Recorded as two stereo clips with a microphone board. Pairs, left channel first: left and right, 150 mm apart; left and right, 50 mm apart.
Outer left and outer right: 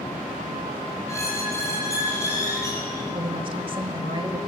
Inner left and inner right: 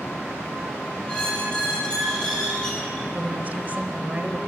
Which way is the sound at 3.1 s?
35° right (ahead or behind).